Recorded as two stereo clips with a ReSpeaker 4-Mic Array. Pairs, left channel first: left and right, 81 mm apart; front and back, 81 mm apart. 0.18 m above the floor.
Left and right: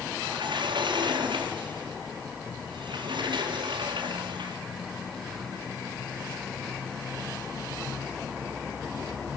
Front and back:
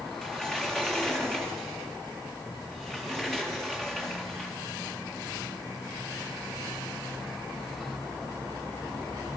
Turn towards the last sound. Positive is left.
turn(degrees=-85)